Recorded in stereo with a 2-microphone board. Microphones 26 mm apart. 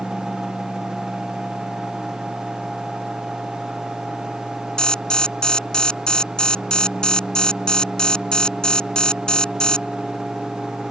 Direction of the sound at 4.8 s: 35° left (ahead or behind).